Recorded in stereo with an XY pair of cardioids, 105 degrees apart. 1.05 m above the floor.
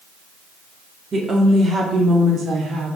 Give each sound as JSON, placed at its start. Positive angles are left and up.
{"t": 1.1, "sound": "a woman speaking", "azimuth_deg": -35, "distance_m": 1.8}